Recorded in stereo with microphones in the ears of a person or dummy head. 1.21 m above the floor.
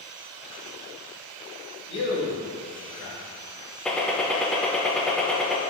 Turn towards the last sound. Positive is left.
turn(degrees=5)  # may be behind; listen again after turning